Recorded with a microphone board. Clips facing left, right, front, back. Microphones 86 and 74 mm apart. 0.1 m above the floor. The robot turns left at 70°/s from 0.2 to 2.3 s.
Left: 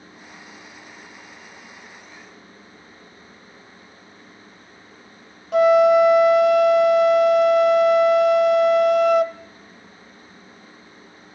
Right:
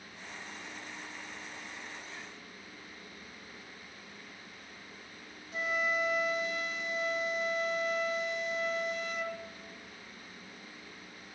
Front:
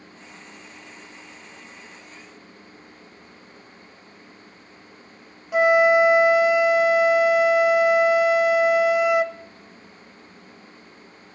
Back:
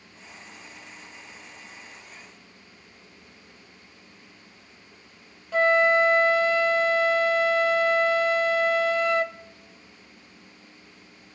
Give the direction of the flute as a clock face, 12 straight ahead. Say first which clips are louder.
Left 20 dB, front 4 dB; 9 o'clock.